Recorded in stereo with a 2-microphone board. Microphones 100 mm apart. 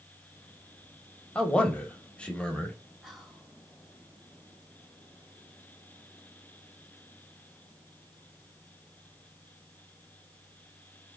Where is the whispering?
Centre (ahead or behind), 1.1 m.